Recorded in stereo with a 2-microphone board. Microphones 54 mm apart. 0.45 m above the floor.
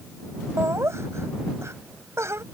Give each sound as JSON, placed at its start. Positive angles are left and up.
{"t": 0.6, "sound": "laughter", "side_deg": -60}